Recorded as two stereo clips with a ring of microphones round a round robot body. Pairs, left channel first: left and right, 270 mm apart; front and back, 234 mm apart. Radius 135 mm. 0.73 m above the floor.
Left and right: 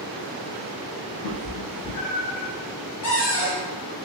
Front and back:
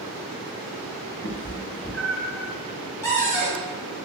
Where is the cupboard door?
75° left, 1.7 m.